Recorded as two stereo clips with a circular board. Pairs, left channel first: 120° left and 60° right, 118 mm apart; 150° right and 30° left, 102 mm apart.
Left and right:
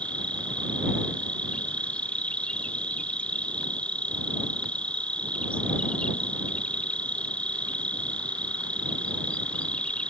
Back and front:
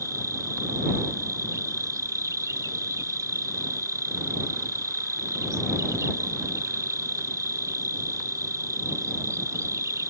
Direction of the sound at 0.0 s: 50° left.